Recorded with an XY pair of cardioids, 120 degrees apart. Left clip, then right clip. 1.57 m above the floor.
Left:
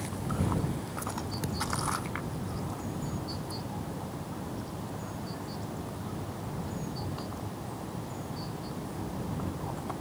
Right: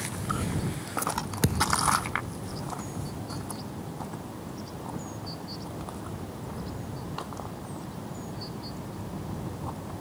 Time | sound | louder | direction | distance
1.4 | a thud | right 9 dB | 60° right | ?